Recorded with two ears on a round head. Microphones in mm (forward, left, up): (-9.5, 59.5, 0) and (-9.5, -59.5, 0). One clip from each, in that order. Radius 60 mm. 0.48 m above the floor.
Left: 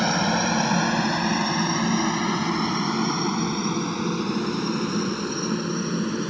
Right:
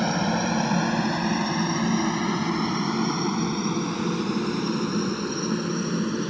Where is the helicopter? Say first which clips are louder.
Left 3 dB; 30° left (ahead or behind); by 6.3 s 5° left (ahead or behind).